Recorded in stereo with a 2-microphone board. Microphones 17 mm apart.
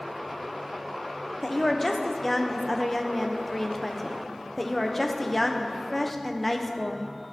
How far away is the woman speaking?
About 0.7 m.